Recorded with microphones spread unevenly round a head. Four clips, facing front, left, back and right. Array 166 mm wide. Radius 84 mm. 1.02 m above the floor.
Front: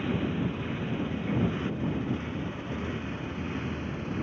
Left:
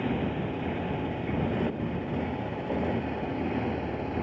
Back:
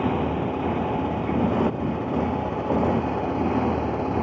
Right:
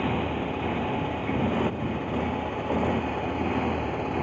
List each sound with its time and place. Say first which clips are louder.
0.0 s a motorcycle: right 2 dB, back 6 dB; 175° right